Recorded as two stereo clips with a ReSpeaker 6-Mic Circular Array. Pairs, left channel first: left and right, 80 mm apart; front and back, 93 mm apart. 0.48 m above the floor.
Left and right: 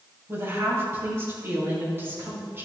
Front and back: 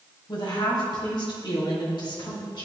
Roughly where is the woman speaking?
Ahead right.